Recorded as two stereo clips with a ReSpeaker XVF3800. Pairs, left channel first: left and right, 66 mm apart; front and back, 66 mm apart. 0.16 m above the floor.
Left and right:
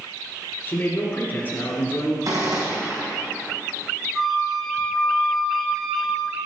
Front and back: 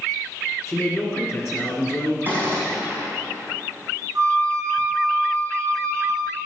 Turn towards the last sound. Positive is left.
turn(degrees=180)